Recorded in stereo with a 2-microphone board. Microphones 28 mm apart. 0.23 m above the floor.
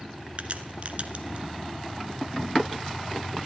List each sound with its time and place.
0.4 s a crack: 50° right (ahead or behind), 1.1 m